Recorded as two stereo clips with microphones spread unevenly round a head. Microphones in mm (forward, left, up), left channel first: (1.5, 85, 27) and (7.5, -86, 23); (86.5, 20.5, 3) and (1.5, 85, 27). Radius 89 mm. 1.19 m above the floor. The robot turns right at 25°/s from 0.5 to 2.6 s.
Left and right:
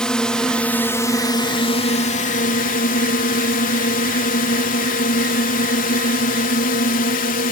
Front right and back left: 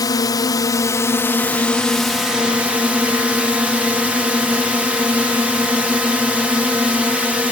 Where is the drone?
5° left; by 7.5 s 60° left.